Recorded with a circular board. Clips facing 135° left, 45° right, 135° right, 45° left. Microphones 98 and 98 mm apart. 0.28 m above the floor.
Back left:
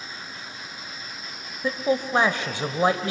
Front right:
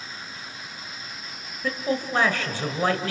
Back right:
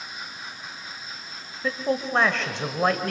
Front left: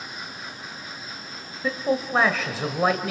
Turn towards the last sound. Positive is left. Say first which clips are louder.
# back left 3 dB, front left 1 dB
turn(degrees=125)